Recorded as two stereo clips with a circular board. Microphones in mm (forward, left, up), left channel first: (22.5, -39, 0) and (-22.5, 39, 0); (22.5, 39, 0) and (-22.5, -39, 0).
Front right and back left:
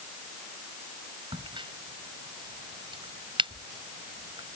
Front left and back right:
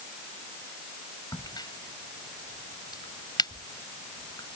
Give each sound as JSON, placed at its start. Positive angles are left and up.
{"t": 1.3, "sound": "a crack", "azimuth_deg": 100}